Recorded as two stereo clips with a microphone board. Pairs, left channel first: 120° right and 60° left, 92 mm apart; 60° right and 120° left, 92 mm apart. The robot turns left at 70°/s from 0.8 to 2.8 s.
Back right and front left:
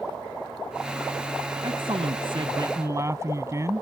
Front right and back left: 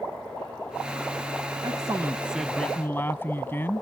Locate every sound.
1.6 s a man speaking: 85° left; by 3.8 s 5° left